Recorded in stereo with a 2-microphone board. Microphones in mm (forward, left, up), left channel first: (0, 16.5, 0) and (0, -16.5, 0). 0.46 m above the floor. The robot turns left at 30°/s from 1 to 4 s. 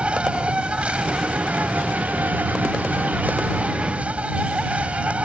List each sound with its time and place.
0.0 s an insect: 40° right; by 5.2 s 130° right